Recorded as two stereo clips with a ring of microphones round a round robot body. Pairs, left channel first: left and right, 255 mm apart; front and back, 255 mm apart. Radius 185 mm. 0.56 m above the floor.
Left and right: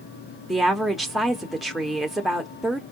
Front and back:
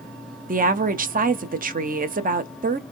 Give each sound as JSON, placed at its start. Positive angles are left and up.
{"t": 0.5, "sound": "a woman speaking", "azimuth_deg": 180, "distance_m": 0.7}